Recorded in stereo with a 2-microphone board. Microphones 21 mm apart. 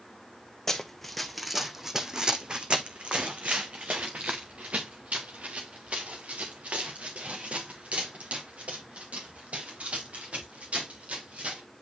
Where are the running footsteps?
15° left (ahead or behind), 1.0 m; by 11.6 s 85° right, 5.5 m.